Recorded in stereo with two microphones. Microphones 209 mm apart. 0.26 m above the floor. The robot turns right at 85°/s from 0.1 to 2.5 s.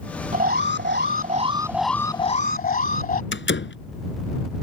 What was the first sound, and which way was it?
An alarm, 130° right.